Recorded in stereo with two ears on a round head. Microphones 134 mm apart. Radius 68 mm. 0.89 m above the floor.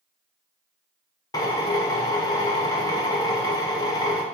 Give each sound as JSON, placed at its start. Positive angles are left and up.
{"t": 1.3, "sound": "a drill", "side_deg": 25, "distance_m": 1.4}